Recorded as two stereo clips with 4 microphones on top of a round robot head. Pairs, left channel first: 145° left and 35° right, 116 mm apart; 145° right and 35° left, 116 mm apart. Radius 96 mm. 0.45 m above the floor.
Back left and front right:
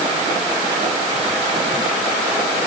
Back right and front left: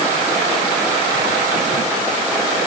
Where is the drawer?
I don't hear a drawer.